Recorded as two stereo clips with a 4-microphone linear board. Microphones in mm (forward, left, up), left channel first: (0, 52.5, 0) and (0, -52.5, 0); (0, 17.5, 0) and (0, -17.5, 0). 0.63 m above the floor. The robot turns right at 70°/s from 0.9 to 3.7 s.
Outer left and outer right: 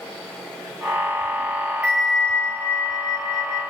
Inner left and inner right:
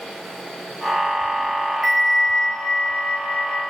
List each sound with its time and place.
1.8 s a bell: 20° right, 0.6 m; by 3.6 s 105° left, 0.6 m